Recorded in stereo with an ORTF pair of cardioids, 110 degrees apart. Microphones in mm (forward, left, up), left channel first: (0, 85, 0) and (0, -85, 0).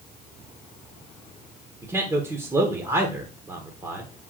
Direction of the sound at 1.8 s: 20° right.